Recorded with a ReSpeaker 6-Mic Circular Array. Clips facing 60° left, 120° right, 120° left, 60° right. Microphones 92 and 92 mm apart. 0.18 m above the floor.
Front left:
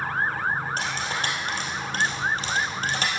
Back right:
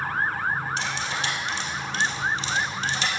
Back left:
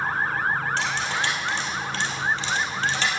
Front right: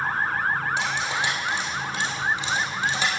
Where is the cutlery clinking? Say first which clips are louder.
Even, even; 15° left, 2.5 m.